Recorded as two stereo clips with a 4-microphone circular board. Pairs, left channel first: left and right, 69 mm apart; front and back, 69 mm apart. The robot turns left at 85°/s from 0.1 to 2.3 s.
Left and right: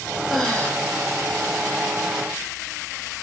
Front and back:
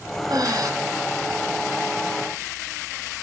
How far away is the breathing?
About 0.9 m.